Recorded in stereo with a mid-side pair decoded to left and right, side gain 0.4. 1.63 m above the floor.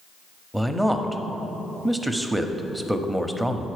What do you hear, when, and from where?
0.5 s a man speaking: 5° right, 0.8 m